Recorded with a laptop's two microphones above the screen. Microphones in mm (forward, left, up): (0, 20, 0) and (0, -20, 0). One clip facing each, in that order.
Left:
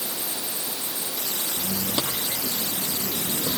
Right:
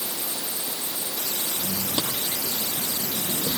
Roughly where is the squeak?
Left.